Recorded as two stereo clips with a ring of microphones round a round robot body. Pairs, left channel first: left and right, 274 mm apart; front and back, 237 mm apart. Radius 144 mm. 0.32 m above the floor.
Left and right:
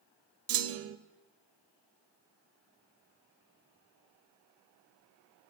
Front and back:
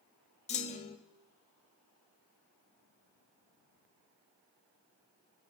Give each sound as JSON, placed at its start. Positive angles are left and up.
{"t": 0.5, "sound": "a clunk", "azimuth_deg": -60, "distance_m": 0.7}